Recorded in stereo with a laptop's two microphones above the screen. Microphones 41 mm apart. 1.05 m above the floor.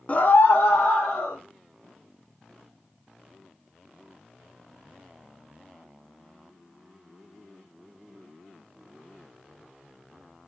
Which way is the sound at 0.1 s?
35° left (ahead or behind).